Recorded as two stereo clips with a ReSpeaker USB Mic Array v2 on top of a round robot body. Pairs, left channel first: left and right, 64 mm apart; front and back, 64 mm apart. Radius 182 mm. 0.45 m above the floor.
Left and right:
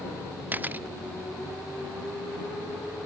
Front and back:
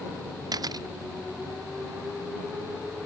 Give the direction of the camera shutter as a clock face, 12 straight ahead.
5 o'clock.